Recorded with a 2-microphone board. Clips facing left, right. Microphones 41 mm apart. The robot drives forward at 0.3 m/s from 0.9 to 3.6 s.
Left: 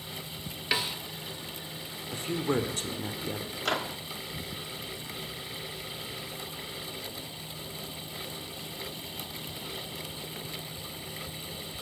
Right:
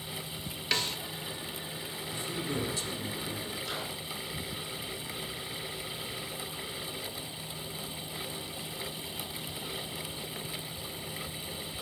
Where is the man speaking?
55° left (ahead or behind), 2 m; by 3.5 s 45° left (ahead or behind), 2.5 m.